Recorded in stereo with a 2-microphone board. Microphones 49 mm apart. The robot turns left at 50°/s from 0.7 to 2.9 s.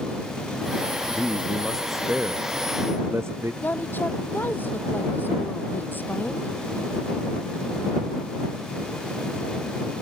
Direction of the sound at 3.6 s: 40° left (ahead or behind).